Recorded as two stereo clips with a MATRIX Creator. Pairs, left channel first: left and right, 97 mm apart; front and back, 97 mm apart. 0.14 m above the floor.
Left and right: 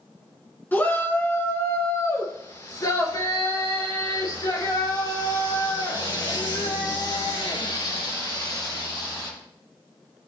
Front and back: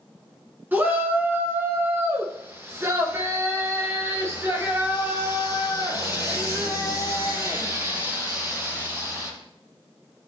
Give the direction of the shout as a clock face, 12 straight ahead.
8 o'clock.